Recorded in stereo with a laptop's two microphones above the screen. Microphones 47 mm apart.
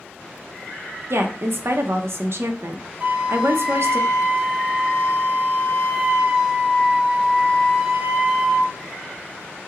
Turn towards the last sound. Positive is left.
turn(degrees=-25)  # may be behind; listen again after turning